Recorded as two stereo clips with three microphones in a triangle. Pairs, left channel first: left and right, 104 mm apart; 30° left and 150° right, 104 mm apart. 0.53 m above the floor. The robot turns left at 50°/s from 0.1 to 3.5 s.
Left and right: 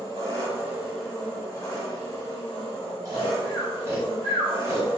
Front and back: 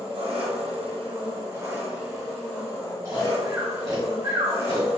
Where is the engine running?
135° right, 1.4 m; by 5.0 s 55° left, 1.4 m.